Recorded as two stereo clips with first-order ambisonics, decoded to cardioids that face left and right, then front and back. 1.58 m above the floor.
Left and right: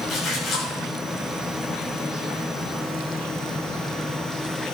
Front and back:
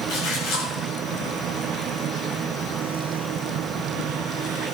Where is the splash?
30° left, 9 m.